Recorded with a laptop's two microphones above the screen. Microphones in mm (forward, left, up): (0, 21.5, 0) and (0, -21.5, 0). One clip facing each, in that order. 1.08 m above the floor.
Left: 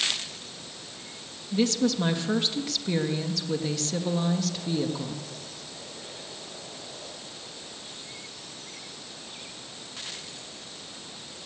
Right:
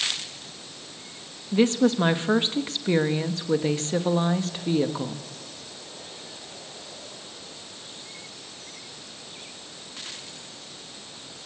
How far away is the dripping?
I don't hear dripping.